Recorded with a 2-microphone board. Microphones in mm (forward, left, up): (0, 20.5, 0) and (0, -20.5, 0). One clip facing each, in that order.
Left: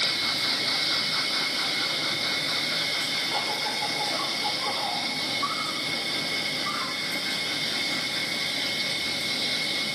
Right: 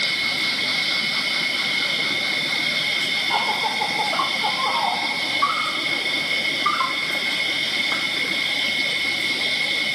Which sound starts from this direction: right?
An insect, at 0.0 s.